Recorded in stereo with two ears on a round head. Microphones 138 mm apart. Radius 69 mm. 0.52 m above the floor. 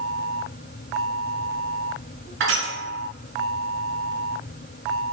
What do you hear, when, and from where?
2.4 s crushing: 85° right, 1.8 m